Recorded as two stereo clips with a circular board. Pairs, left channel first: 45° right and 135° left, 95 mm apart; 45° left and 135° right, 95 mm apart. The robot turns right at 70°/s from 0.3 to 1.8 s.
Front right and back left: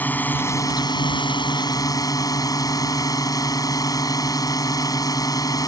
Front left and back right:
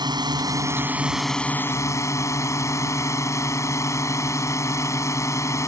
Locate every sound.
0.0 s a drone: 110° right; by 5.7 s 5° right